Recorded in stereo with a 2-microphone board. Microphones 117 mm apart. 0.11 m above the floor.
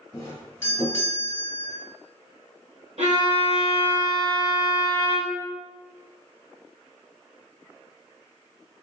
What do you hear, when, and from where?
0.1 s a doorbell: 20° left (ahead or behind), 1.7 m
3.0 s a violin: 75° right (ahead or behind), 1.2 m